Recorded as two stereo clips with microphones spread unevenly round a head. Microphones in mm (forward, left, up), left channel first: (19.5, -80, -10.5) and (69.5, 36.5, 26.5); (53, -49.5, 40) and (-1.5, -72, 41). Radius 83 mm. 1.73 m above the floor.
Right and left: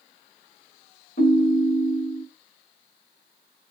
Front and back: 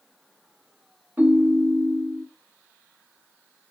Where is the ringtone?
105° right, 1.0 m.